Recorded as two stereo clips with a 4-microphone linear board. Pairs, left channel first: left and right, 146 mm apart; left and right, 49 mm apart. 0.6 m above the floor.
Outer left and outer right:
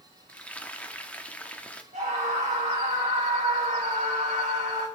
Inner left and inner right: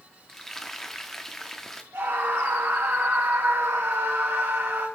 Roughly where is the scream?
Right.